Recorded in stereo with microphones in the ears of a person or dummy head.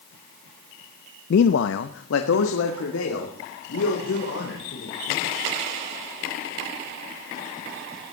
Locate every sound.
1.3 s a man speaking: 60° left (ahead or behind), 0.6 m; by 5.3 s 80° left, 5 m